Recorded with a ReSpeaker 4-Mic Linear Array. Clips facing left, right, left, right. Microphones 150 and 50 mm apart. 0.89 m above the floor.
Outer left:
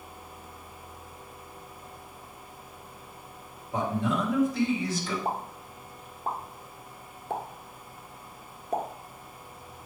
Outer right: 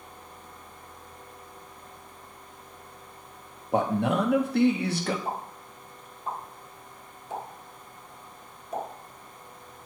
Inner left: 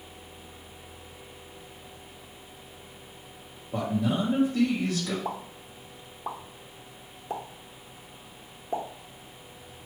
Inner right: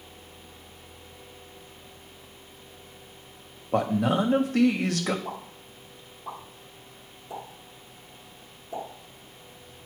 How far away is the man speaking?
About 1.2 m.